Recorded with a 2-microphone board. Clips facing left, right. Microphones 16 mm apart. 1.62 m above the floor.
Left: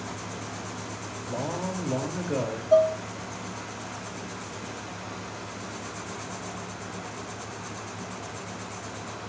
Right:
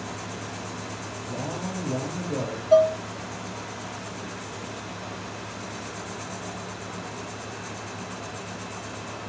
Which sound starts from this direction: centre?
Dishes clattering, at 2.7 s.